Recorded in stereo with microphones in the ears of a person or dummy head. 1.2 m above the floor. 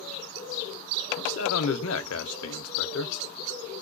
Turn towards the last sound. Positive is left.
turn(degrees=75)  # may be behind; listen again after turning